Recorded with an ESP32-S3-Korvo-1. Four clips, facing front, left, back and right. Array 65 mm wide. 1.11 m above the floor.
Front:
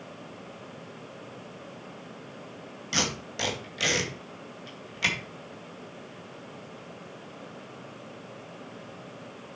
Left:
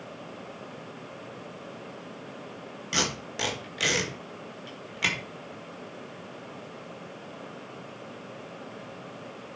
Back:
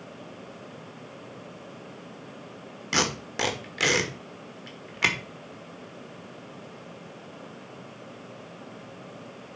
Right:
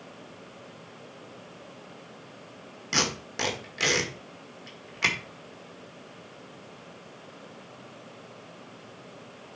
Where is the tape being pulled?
160° right, 1.7 m.